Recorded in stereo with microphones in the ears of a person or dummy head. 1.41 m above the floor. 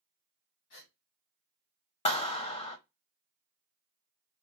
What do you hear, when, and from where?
0.7 s a gasp: 55° left (ahead or behind), 1.7 m
2.0 s a clap: 25° left (ahead or behind), 0.8 m